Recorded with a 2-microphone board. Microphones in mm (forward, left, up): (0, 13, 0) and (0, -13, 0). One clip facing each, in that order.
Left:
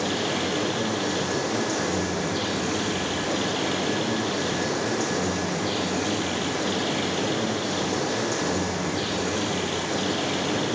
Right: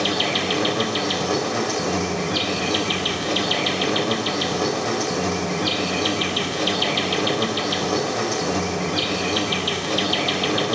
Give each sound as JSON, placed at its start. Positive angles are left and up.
{"t": 0.0, "sound": "an insect", "side_deg": -70, "distance_m": 4.0}